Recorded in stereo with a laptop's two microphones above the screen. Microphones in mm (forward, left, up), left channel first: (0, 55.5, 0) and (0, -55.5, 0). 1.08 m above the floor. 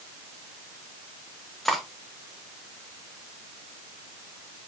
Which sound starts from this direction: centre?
Cutlery clinking, at 1.6 s.